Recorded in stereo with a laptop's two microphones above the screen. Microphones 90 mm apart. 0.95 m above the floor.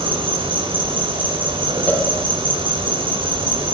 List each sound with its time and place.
0.0 s an insect: 70° right (ahead or behind), 5.5 m
1.9 s a cowbell: 20° left (ahead or behind), 1.9 m